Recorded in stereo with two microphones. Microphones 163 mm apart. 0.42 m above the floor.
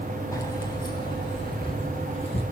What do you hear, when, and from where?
0.3 s keys jangling: 20° left (ahead or behind), 2.5 m; by 2.4 s 35° left (ahead or behind), 5 m